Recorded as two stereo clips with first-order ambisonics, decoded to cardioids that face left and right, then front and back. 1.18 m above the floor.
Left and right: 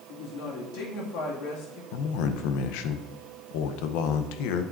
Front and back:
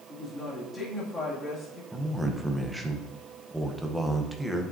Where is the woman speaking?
85° left, 2 m.